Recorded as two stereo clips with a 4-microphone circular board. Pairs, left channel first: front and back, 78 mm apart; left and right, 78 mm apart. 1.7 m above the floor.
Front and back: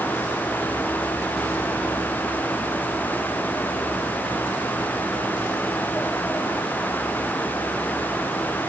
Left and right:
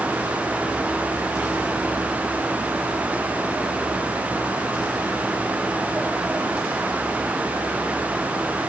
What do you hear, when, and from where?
Only background noise.